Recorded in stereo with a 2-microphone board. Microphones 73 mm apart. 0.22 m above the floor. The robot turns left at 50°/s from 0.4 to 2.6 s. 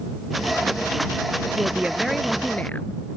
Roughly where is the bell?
I don't hear a bell.